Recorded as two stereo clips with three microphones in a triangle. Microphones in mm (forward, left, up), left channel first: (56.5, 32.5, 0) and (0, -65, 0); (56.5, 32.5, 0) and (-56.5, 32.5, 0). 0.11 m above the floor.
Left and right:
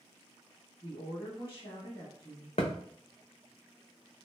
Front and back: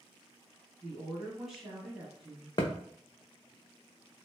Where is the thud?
50° left, 0.7 m.